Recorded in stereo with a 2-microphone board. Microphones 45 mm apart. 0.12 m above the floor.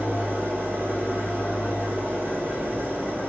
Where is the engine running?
40° right (ahead or behind), 1.3 m.